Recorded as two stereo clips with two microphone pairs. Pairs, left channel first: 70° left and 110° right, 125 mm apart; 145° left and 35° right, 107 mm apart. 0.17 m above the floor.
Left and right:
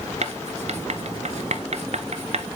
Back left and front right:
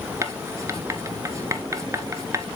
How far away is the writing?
About 0.8 m.